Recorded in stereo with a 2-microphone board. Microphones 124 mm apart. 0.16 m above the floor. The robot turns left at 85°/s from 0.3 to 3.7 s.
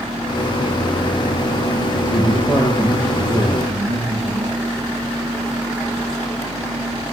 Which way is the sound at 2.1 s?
25° left.